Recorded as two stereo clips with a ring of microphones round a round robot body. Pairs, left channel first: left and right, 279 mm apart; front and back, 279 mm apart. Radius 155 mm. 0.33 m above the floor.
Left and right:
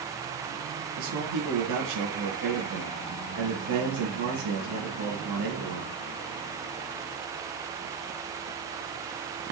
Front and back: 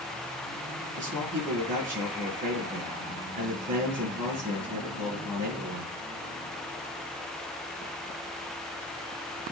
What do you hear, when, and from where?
1.0 s a man speaking: 120° right, 4.5 m